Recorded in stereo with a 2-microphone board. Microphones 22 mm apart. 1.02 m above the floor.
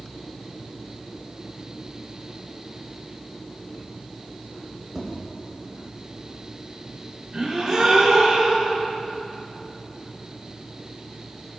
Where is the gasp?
35° right (ahead or behind), 3 m.